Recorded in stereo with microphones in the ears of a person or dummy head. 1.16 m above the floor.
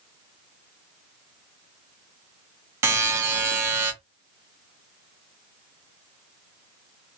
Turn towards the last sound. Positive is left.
turn(degrees=-15)  # may be behind; listen again after turning